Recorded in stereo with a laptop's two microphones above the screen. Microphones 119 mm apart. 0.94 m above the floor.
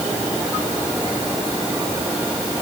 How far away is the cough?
No cough in this recording.